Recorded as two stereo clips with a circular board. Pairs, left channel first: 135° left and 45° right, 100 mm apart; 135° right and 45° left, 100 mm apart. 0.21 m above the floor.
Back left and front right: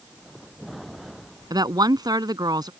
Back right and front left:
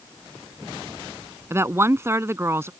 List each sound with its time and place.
1.5 s a woman speaking: 10° right